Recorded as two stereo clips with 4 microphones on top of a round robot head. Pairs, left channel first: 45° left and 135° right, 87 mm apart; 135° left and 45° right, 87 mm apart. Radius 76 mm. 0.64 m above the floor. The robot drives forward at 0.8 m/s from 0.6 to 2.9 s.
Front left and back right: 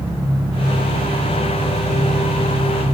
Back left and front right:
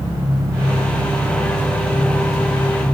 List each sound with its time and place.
0.0 s an engine running: 95° right, 7 m; by 2.9 s 110° right, 7.5 m